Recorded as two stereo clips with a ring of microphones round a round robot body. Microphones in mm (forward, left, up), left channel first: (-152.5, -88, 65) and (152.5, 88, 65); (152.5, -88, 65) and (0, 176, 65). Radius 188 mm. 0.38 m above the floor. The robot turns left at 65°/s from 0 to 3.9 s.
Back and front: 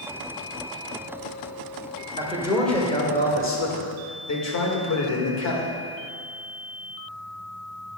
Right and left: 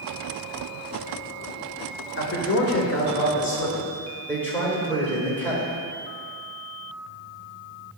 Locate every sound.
2.2 s a man speaking: 30° right, 1.6 m; by 5.7 s 140° right, 1.6 m